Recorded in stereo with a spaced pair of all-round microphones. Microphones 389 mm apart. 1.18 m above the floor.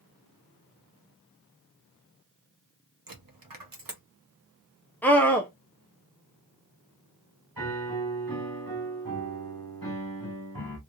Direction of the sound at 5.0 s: 5° left (ahead or behind).